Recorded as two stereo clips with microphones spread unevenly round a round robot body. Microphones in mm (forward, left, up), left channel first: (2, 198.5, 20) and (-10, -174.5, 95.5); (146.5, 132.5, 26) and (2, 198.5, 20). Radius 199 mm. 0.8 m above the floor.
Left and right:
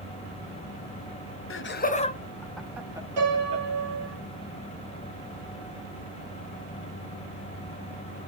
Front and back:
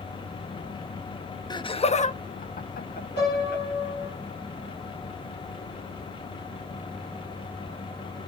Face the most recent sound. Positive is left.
turn(degrees=-70)